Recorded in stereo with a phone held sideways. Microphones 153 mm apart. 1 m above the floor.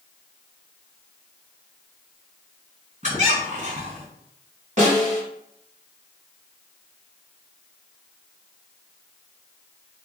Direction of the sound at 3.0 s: 55° right (ahead or behind).